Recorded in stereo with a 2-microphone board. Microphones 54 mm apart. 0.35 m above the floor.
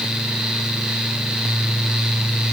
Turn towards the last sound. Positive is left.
No sound to turn to.